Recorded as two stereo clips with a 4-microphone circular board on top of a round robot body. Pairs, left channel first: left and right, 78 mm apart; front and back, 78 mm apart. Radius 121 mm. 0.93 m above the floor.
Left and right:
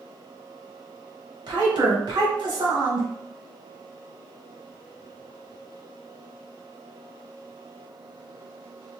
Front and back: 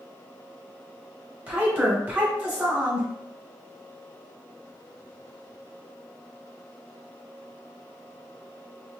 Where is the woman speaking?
115° right, 1.6 m.